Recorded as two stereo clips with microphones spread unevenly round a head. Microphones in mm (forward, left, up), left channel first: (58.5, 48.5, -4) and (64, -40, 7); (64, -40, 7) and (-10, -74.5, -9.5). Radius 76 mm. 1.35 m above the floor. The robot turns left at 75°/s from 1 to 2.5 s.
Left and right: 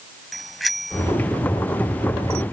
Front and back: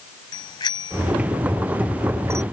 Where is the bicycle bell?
Straight ahead; by 2.4 s 105° right.